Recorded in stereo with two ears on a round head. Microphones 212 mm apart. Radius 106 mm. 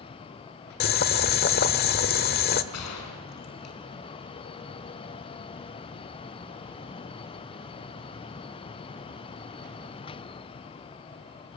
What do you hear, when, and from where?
0.8 s boiling: 40° left (ahead or behind), 1.1 m
2.7 s a gunshot: 75° left (ahead or behind), 4 m